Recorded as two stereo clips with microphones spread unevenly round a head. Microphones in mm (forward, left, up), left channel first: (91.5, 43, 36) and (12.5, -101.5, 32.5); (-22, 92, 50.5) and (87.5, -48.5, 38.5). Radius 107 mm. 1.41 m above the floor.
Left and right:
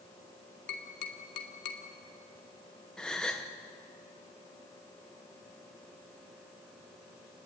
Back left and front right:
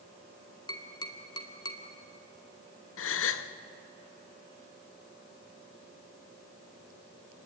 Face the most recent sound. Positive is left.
turn(degrees=150)